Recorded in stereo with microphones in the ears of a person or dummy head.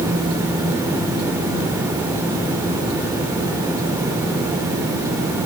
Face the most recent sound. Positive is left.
No sound to turn to.